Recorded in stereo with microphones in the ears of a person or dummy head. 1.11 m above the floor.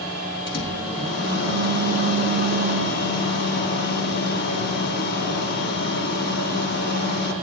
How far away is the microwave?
About 2.5 m.